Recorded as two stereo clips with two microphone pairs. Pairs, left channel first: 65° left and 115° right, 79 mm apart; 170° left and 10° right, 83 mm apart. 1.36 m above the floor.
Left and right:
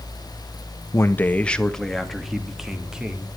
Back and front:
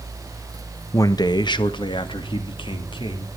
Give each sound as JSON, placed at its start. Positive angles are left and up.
{"t": 0.9, "sound": "a man speaking", "azimuth_deg": 120, "distance_m": 1.1}